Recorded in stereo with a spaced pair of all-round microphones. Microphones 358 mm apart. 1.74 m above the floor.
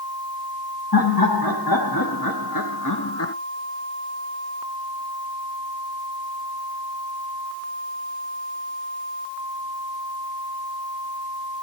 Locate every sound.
0.9 s laughter: 75° left (ahead or behind), 2 m; by 3.3 s 40° left (ahead or behind), 0.5 m